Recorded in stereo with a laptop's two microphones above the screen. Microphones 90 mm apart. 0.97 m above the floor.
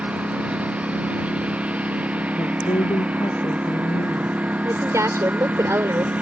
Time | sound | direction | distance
0.0 | a lawn mower | 15° right (ahead or behind) | ?
2.4 | a woman speaking | 75° left (ahead or behind) | ?
4.6 | a woman speaking | 35° right (ahead or behind) | ?